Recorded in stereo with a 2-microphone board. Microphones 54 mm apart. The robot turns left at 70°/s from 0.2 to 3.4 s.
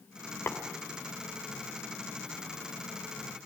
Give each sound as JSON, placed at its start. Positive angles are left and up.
{"t": 0.5, "sound": "tapping", "side_deg": 50, "distance_m": 2.5}